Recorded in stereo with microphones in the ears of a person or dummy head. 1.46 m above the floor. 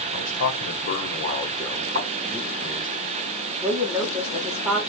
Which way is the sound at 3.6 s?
10° right (ahead or behind).